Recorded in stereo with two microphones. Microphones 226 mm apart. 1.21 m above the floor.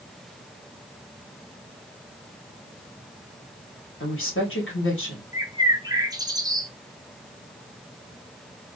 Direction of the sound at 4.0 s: 60° left (ahead or behind).